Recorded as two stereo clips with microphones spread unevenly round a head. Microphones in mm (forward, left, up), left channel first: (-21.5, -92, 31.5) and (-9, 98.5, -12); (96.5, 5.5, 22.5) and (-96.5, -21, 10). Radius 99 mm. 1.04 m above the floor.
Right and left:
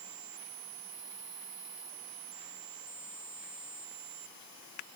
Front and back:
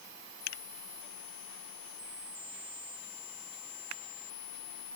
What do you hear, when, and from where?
Only background noise.